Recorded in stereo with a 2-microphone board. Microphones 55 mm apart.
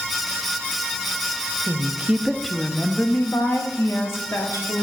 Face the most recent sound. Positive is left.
turn(degrees=65)  # may be behind; listen again after turning